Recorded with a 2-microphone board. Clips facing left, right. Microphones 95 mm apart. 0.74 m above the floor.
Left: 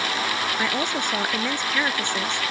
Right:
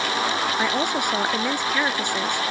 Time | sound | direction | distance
0.6 | a woman speaking | 10° right (ahead or behind) | ?